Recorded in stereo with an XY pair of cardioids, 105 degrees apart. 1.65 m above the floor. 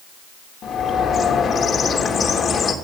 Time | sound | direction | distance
0.6 | a bird | 55° left | 3 m